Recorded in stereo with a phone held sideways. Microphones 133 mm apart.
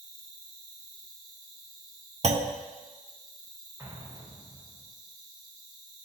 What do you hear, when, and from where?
0.0 s an insect: 40° left (ahead or behind), 1.9 m
2.2 s a clunk: 55° right (ahead or behind), 0.6 m
3.8 s an explosion: 20° right (ahead or behind), 2.5 m